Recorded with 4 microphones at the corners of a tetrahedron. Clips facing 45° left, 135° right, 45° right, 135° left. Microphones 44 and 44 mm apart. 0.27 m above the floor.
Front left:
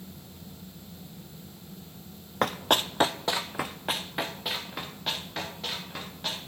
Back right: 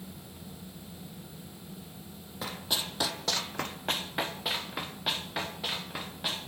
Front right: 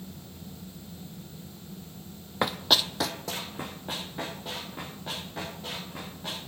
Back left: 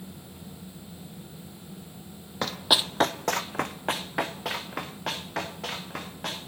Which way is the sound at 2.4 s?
25° left.